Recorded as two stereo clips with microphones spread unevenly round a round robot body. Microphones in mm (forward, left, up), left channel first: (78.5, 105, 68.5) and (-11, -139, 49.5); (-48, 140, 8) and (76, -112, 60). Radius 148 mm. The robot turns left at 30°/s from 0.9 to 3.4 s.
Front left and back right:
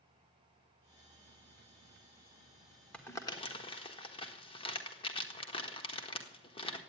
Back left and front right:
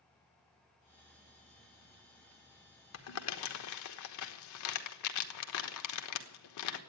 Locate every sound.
2.9 s crumpling: 155° left, 1.3 m; by 6.8 s 145° left, 1.3 m